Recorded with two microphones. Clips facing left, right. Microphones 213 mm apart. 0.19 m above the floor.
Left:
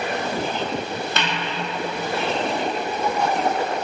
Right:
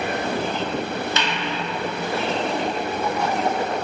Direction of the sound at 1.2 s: 55° left (ahead or behind).